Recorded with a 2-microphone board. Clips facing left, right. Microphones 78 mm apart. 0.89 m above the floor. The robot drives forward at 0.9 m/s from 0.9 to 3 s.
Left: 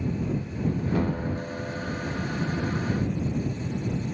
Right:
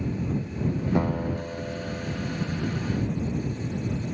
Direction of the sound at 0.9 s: 20° right (ahead or behind).